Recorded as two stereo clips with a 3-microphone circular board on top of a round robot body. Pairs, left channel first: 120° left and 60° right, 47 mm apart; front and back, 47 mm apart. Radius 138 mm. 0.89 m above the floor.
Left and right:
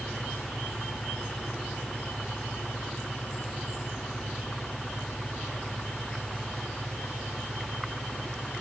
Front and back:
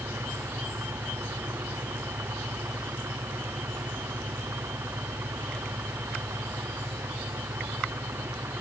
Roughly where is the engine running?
Behind.